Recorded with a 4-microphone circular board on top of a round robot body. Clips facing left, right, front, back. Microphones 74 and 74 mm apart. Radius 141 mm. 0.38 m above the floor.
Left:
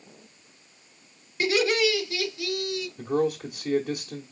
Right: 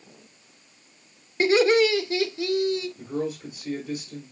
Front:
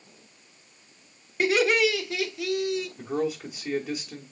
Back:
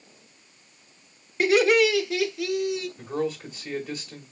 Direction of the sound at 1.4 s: 90° right.